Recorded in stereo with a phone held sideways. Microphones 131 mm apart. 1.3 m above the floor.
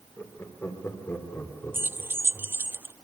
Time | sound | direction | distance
0.2 | laughter | 20° left (ahead or behind) | 4 m
1.7 | keys jangling | 15° right (ahead or behind) | 0.5 m